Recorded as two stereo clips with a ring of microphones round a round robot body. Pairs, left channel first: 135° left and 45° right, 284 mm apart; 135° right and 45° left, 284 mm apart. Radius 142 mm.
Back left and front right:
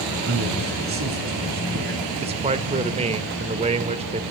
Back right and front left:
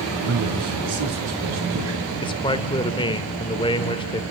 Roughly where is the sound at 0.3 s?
Ahead.